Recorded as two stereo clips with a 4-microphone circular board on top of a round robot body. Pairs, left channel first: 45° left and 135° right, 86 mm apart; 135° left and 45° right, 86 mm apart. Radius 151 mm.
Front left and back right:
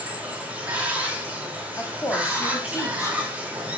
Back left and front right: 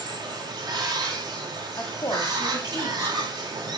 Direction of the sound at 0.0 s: 65° right.